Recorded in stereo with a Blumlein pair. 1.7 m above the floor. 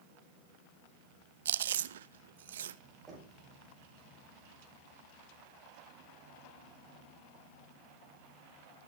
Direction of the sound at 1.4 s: 60° right.